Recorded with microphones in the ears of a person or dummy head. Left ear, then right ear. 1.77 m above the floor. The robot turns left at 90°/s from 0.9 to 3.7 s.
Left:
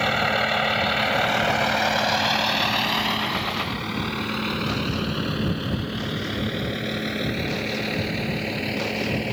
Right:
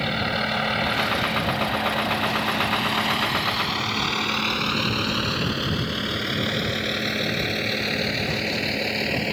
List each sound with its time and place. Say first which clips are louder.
0.0 s a vehicle: left 3 dB; 35° left (ahead or behind); by 9.3 s 25° right (ahead or behind)